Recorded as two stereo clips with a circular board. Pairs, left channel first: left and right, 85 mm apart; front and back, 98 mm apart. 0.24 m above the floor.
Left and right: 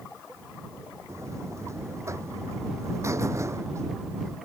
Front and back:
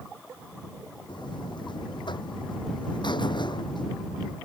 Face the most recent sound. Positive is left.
turn(degrees=-35)